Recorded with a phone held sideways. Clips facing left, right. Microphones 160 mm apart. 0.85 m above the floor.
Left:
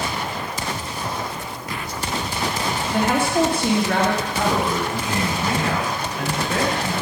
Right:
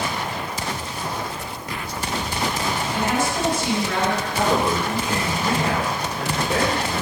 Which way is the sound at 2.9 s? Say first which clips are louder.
Left 5 dB; 60° left (ahead or behind).